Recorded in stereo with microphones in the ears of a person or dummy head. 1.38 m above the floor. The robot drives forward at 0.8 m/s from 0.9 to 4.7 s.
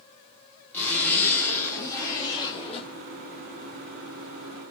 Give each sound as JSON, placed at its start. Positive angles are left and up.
{"t": 0.7, "sound": "a zipper", "side_deg": 15, "distance_m": 2.5}